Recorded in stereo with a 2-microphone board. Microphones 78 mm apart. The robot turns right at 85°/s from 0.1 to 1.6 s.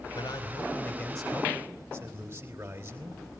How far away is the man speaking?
About 3 m.